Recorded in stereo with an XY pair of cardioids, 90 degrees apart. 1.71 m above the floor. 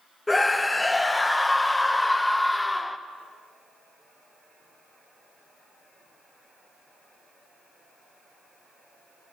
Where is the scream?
20° left, 0.5 m.